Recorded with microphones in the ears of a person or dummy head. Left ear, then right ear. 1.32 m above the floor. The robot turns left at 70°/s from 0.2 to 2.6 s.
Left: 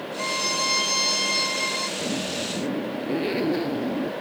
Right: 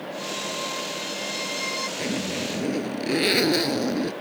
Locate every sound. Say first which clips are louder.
0.2 s a violin: left 6 dB; 115° left; by 1.9 s 5° right
2.0 s a zipper: even; 30° right; by 4.1 s 70° right